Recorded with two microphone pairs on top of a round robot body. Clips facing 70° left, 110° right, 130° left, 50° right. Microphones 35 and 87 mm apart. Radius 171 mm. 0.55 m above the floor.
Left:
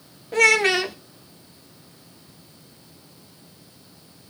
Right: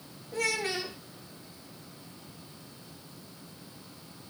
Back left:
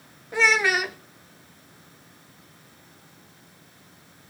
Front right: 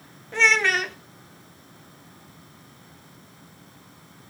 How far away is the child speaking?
About 0.6 m.